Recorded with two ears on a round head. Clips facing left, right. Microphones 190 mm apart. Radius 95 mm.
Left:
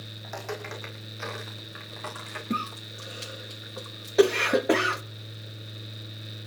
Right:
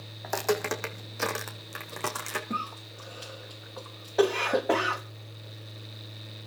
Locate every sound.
0.2 s footsteps: 75° right (ahead or behind), 3.5 m; by 2.4 s 65° right (ahead or behind), 4 m
2.5 s a cough: 30° left (ahead or behind), 1.3 m